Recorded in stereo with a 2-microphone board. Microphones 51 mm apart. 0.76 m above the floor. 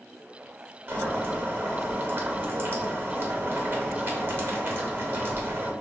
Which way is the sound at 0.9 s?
45° right (ahead or behind).